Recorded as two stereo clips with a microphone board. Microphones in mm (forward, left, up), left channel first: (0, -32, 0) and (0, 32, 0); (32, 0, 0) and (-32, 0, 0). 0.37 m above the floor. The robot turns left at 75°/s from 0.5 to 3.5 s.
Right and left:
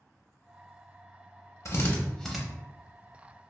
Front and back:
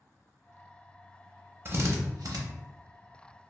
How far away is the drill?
About 0.6 m.